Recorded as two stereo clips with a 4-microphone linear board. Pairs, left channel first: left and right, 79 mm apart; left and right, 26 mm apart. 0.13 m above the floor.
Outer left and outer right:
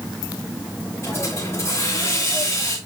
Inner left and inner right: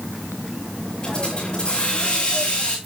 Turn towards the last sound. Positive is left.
turn(degrees=40)  # may be behind; listen again after turning